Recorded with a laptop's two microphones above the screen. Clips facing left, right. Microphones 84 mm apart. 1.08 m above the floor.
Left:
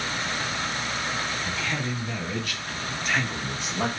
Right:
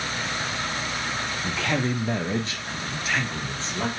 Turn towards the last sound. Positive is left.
turn(degrees=15)  # may be behind; listen again after turning